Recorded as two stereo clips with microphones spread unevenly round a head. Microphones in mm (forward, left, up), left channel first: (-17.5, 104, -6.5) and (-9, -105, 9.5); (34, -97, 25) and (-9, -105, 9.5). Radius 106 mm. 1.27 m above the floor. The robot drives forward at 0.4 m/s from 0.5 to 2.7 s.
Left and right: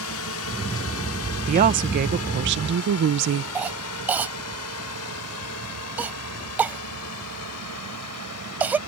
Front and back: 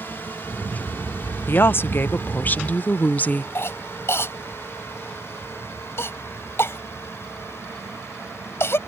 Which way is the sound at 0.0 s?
75° left.